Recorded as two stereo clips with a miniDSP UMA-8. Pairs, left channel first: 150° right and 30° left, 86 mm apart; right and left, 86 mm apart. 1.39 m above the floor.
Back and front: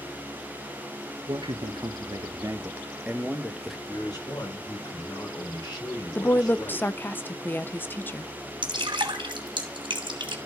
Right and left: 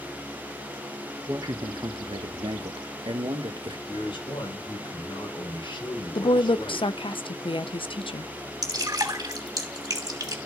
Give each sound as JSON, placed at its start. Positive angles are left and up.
{"t": 1.3, "sound": "a man speaking", "azimuth_deg": 45, "distance_m": 1.3}
{"t": 3.9, "sound": "a man speaking", "azimuth_deg": -110, "distance_m": 5.0}
{"t": 6.2, "sound": "a woman speaking", "azimuth_deg": -85, "distance_m": 0.8}
{"t": 8.6, "sound": "dripping", "azimuth_deg": 50, "distance_m": 2.5}